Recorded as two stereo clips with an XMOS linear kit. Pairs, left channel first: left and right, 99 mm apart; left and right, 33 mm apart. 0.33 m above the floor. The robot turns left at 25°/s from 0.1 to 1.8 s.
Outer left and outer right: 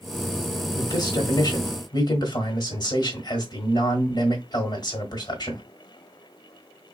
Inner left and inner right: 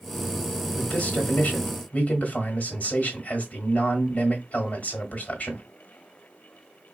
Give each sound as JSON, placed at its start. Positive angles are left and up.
{"t": 0.8, "sound": "a man speaking", "side_deg": 45, "distance_m": 1.2}